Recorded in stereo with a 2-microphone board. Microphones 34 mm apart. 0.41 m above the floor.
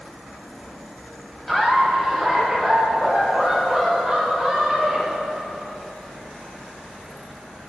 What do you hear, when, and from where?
1.5 s laughter: 10° left (ahead or behind), 2.5 m; by 5.7 s centre (ahead or behind), 8 m